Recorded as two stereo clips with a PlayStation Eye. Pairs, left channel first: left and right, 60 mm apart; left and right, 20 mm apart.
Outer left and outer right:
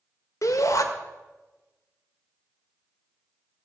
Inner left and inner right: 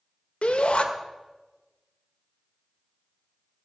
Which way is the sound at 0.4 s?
70° left (ahead or behind).